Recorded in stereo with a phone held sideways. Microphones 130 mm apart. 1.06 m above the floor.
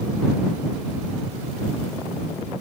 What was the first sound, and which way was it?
Only background noise.